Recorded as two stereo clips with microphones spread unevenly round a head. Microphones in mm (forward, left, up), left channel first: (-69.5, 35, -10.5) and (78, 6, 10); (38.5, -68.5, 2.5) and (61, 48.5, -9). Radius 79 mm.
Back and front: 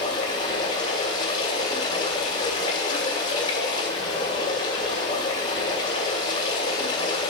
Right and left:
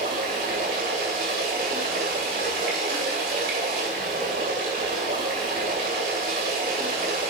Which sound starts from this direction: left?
Running water, at 0.0 s.